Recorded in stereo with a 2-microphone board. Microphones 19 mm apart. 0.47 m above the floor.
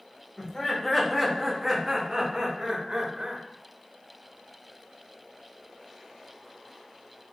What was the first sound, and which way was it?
Laughter, 25° left (ahead or behind).